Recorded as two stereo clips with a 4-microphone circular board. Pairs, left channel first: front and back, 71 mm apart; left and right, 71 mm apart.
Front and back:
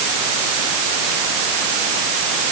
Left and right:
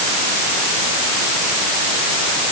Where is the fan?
No fan in this recording.